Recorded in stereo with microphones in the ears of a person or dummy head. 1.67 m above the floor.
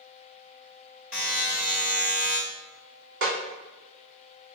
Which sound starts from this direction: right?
A snare drum, at 3.2 s.